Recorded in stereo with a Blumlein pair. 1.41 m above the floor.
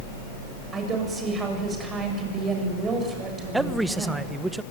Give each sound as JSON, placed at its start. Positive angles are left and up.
{"t": 0.7, "sound": "a woman speaking", "azimuth_deg": -20, "distance_m": 8.0}
{"t": 3.5, "sound": "a man speaking", "azimuth_deg": -5, "distance_m": 1.2}